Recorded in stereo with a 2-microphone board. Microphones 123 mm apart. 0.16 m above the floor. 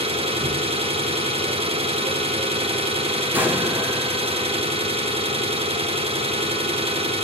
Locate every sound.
0.0 s an engine running: 60° right (ahead or behind), 1.0 m
3.3 s an explosion: 15° right (ahead or behind), 0.9 m